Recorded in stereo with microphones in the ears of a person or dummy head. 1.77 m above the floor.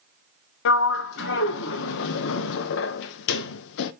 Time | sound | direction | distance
0.7 | a sliding door | 70° left (ahead or behind) | 0.6 m